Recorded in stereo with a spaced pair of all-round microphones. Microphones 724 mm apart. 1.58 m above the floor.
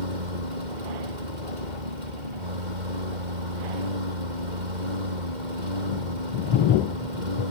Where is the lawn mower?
80° right.